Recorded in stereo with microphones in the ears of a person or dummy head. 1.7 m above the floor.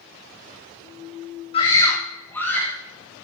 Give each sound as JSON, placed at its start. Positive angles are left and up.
{"t": 1.5, "sound": "a scream", "side_deg": 30, "distance_m": 1.3}